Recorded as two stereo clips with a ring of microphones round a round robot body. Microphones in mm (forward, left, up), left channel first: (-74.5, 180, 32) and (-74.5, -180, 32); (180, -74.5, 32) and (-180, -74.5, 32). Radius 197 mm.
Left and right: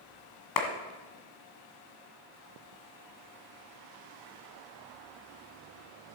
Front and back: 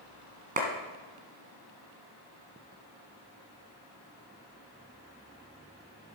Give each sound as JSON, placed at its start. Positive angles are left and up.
{"t": 0.6, "sound": "a clap", "azimuth_deg": 110, "distance_m": 2.0}